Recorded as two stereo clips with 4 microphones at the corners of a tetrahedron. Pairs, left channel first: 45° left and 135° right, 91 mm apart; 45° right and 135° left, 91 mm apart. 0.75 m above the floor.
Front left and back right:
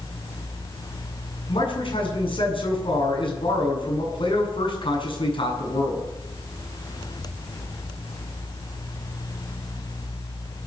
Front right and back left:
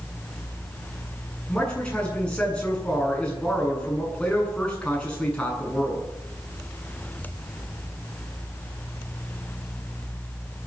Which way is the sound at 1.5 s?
35° left.